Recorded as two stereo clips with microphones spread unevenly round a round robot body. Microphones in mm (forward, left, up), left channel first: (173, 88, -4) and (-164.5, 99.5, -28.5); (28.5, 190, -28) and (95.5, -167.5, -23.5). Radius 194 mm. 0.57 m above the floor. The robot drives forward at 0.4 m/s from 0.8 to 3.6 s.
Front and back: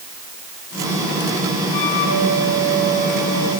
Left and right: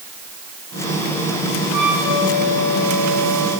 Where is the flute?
40° right, 9.5 m.